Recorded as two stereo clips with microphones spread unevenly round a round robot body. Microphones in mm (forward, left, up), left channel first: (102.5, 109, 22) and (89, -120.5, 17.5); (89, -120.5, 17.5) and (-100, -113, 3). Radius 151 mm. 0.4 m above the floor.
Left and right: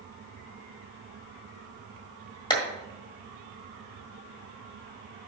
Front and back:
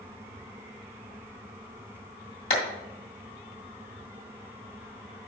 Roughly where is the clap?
Ahead.